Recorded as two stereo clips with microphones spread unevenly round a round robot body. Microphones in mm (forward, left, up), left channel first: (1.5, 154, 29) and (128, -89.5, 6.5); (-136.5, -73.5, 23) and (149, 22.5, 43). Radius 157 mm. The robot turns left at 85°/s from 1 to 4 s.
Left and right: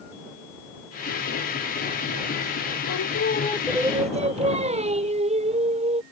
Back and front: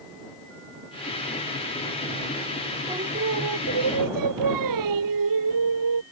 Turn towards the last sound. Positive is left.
turn(degrees=5)